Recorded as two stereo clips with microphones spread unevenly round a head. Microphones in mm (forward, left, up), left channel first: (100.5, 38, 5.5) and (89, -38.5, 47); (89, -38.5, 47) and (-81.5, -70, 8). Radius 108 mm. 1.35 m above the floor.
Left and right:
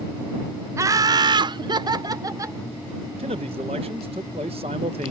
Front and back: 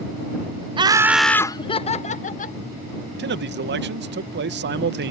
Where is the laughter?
175° right; by 2.6 s 35° right.